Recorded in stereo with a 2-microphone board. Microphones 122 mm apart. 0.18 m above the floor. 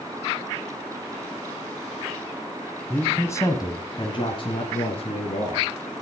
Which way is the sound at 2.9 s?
10° left (ahead or behind).